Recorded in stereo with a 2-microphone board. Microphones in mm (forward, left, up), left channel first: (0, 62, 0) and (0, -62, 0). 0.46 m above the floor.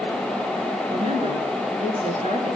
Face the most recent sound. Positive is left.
turn(degrees=-65)  # may be behind; listen again after turning